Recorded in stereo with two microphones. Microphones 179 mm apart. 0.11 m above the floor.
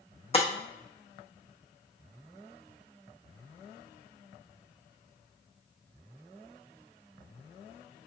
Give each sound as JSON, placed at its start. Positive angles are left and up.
{"t": 0.3, "sound": "breaking glass", "side_deg": 35, "distance_m": 0.8}